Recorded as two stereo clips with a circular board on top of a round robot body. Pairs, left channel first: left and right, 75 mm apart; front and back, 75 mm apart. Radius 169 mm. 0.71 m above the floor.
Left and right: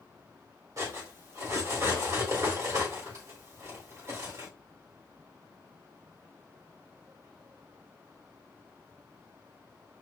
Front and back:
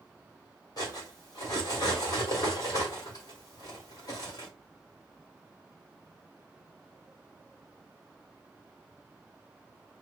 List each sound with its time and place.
0.8 s cutlery clinking: 40° right, 2 m